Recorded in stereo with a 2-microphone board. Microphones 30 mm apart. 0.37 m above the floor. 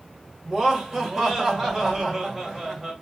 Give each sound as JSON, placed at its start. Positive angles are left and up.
{"t": 0.5, "sound": "laughter", "side_deg": -20, "distance_m": 1.6}